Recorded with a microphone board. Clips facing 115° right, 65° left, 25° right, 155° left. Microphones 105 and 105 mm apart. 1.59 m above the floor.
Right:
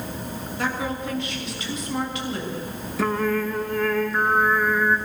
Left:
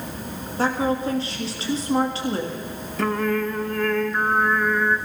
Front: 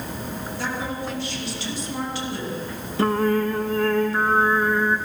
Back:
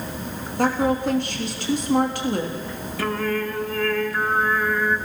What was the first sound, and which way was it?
A woman speaking, 125° left.